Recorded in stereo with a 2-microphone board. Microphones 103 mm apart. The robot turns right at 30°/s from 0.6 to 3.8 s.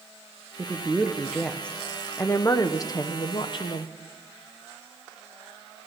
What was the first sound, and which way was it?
A woman speaking, 20° right.